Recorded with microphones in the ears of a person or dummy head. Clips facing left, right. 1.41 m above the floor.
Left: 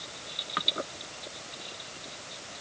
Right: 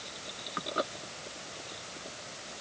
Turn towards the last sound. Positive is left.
No sound to turn to.